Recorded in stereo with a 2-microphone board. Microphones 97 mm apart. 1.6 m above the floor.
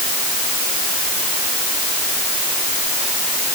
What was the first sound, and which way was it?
Only background noise.